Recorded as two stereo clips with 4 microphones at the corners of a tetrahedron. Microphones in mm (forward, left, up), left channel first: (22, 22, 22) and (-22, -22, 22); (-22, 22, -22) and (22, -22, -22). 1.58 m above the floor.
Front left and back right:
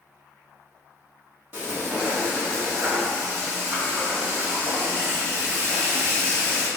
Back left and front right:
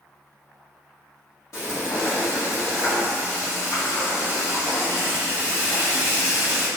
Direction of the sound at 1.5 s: 165° left.